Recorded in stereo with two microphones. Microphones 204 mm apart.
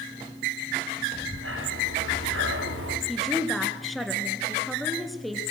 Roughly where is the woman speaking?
Centre.